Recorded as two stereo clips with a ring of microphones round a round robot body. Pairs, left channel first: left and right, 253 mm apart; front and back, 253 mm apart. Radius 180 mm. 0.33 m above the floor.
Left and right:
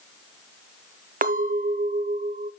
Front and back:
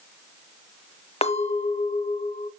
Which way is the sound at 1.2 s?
55° right.